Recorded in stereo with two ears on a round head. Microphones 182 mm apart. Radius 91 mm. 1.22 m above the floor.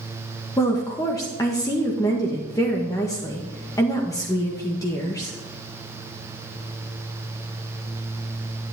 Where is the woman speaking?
15° left (ahead or behind), 1.6 m.